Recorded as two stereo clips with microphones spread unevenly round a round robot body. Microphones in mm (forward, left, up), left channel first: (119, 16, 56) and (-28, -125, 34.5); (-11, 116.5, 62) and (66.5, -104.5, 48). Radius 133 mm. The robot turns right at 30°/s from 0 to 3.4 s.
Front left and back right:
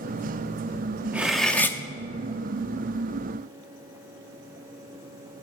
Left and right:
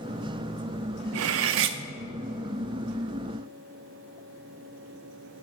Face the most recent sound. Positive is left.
turn(degrees=15)